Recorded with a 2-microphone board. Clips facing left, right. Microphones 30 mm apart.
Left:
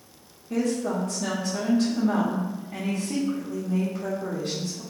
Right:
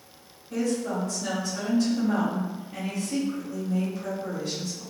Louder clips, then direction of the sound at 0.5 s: Left 2 dB; 70° left (ahead or behind).